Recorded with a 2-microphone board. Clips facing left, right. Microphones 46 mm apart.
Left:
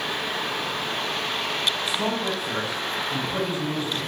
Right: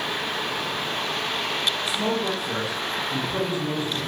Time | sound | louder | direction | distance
1.9 | a man speaking | right 1 dB | 25° left (ahead or behind) | 1.2 m